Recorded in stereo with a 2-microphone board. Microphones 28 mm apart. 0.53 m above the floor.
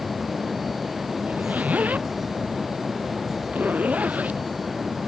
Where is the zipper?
65° right (ahead or behind).